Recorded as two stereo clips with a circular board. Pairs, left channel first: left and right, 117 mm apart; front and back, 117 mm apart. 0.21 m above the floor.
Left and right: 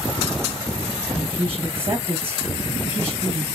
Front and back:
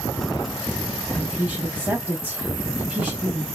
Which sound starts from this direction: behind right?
A woman speaking, at 1.1 s.